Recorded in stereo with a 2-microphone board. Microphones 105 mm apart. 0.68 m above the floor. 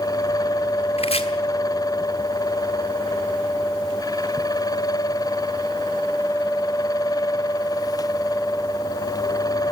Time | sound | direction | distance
1.0 | chopping | 75° left (ahead or behind) | 2 m